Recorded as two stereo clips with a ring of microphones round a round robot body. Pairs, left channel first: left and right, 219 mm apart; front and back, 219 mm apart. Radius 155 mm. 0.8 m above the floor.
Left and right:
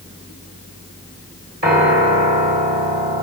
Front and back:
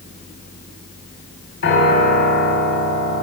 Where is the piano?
45° right, 2.5 m.